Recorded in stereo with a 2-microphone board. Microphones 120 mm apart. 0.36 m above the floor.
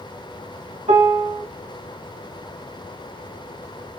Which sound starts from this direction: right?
A piano, at 0.9 s.